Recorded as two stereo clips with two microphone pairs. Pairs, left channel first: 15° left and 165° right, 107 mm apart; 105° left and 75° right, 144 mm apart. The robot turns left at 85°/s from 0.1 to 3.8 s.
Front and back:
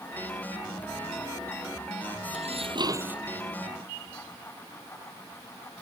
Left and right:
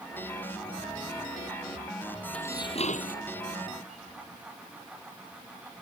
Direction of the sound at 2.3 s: 175° right.